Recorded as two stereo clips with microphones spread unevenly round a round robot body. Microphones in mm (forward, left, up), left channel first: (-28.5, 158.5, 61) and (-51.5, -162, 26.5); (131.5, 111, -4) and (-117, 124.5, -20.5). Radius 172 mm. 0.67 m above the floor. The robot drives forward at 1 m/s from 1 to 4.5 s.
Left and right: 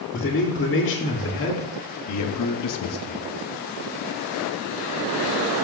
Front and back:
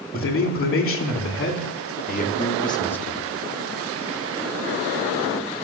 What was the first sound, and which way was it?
A man speaking, 30° left.